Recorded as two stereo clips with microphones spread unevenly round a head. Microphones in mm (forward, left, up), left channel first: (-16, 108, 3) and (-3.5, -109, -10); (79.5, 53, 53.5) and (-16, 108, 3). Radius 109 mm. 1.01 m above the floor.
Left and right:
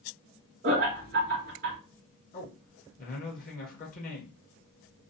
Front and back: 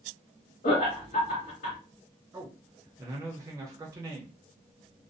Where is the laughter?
40° right, 0.9 m.